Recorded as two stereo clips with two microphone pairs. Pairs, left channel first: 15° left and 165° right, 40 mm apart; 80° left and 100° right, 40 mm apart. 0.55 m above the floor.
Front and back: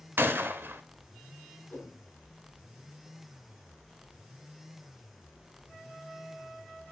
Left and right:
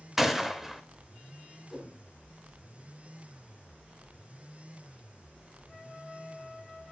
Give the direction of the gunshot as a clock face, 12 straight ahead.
6 o'clock.